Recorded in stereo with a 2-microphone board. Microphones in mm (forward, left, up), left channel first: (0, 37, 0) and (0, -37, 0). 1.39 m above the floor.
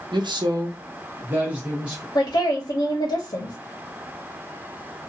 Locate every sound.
0.1 s a man speaking: 80° right, 0.6 m; by 2.0 s 10° right (ahead or behind), 1.3 m
2.1 s a woman speaking: 65° left (ahead or behind), 0.7 m